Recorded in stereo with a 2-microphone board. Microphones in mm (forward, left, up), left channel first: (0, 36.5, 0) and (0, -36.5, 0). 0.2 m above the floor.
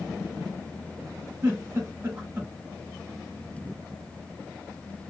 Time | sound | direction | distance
1.4 | a giggle | 35° right (ahead or behind) | 1.8 m